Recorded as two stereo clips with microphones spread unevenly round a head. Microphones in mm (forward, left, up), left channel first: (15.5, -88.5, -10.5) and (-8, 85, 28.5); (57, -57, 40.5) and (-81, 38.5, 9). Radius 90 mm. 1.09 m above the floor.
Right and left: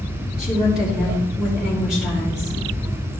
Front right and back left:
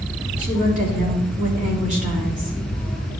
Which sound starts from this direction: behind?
A woman speaking, at 0.4 s.